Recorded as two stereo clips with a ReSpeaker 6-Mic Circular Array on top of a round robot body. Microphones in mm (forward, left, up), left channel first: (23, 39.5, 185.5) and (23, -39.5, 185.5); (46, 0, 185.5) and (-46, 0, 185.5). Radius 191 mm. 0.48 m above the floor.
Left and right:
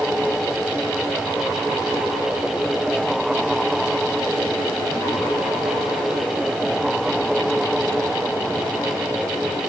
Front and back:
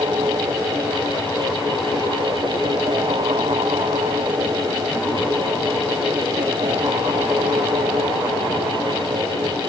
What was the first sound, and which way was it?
Only background noise.